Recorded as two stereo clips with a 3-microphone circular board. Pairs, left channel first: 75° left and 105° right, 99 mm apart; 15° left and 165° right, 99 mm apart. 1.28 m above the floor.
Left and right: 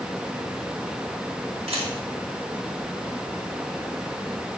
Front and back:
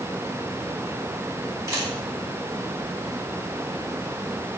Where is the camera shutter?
105° right, 5.5 m.